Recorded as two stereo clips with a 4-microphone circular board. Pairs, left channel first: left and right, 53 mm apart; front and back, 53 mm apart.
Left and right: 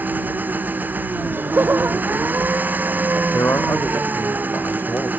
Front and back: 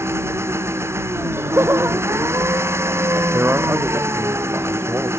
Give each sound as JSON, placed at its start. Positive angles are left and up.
{"t": 0.0, "sound": "an engine running", "azimuth_deg": -145}
{"t": 1.1, "sound": "laughter", "azimuth_deg": -140}
{"t": 3.3, "sound": "a man speaking", "azimuth_deg": 130}